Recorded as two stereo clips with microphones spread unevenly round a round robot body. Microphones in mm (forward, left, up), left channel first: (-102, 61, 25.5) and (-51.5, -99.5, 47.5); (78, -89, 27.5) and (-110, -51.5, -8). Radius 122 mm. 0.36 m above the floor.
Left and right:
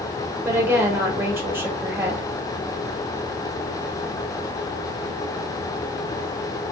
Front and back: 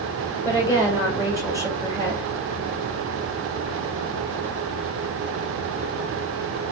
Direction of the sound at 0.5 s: 155° right.